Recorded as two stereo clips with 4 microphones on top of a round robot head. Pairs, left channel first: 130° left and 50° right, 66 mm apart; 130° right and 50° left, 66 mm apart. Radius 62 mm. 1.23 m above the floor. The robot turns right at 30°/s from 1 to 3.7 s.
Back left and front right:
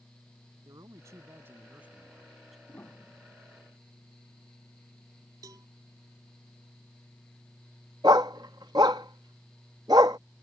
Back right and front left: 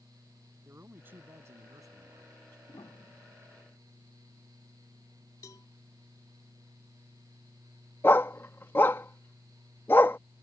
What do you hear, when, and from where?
0.7 s a man speaking: 10° right; by 2.6 s 40° left
2.7 s a piano: 165° right; by 3.6 s 140° right
5.4 s a cowbell: 90° right
8.0 s a dog barking: 75° right